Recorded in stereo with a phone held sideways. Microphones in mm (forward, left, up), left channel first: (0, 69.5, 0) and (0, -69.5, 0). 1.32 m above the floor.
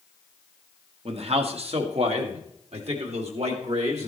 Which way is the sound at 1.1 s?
50° right (ahead or behind).